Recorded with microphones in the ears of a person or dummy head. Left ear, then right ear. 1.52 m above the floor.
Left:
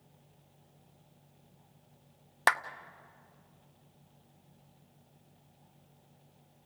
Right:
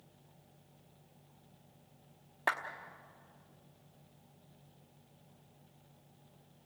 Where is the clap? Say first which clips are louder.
Left 7 dB; 65° left (ahead or behind), 0.9 m.